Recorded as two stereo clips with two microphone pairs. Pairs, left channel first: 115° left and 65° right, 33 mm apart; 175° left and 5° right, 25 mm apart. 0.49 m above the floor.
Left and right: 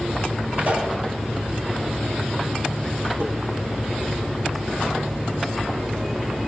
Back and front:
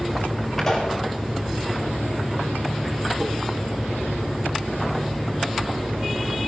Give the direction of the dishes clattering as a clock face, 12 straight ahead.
2 o'clock.